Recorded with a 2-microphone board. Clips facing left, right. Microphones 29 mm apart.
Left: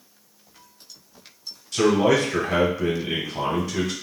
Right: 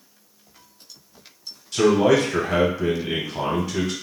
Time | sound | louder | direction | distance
1.7 | a man speaking | right 2 dB | 5° right (ahead or behind) | 1.2 m